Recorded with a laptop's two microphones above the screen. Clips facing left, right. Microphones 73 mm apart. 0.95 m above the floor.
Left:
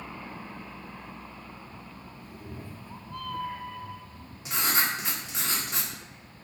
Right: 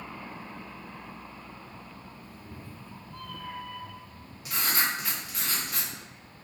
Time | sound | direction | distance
2.2 | a cat meowing | 60° left (ahead or behind) | 0.8 m
4.5 | writing | 25° left (ahead or behind) | 1.7 m